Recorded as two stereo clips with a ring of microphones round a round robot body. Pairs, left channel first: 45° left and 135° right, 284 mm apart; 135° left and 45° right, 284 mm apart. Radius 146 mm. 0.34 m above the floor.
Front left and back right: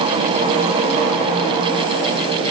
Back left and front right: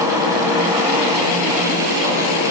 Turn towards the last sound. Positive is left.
No sound to turn to.